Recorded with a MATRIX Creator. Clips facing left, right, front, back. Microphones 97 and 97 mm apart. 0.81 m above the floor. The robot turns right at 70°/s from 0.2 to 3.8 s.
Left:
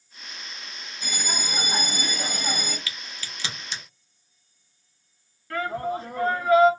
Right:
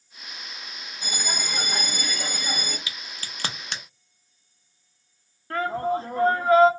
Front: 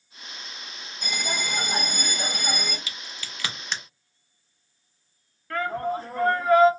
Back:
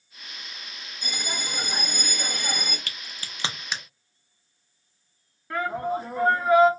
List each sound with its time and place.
1.0 s a bell: 25° right, 1.3 m; by 2.8 s 100° left, 1.3 m
2.9 s a crack: 160° right, 0.5 m; by 3.8 s 90° right, 0.5 m
5.5 s a shout: 115° right, 0.9 m